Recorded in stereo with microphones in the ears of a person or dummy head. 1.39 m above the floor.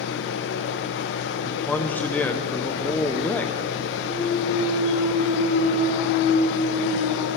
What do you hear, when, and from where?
0.0 s a machine running: 65° left (ahead or behind), 0.7 m
1.4 s a man speaking: 5° left (ahead or behind), 0.7 m
4.0 s a clunk: 35° right (ahead or behind), 2.5 m